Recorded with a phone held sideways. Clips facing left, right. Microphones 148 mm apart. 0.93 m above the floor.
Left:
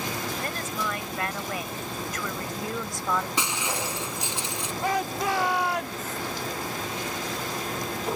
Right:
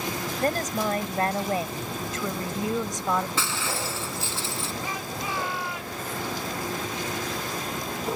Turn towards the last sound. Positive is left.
turn(degrees=70)  # may be behind; listen again after turning